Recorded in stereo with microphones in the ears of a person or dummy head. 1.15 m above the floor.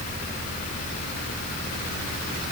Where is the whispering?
No whispering in this recording.